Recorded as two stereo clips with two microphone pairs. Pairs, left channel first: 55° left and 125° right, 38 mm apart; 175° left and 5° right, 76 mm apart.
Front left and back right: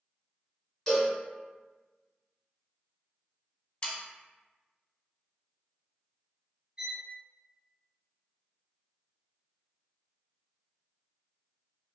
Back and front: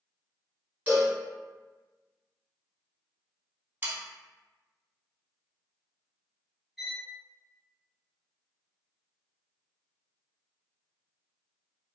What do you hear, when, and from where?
0.9 s a cowbell: 5° right, 1.7 m
3.8 s sawing: 20° left, 0.6 m
6.8 s a violin: 90° right, 0.8 m